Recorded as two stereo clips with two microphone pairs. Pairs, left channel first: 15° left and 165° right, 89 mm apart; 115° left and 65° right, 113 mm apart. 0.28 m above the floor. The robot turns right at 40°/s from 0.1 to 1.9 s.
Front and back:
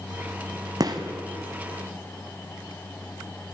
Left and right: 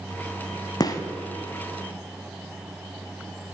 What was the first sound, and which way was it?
A gunshot, 165° left.